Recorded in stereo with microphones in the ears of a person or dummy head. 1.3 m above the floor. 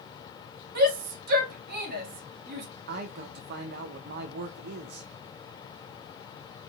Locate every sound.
0.8 s a shout: 60° right (ahead or behind), 1.4 m
2.9 s a man speaking: 60° right (ahead or behind), 0.5 m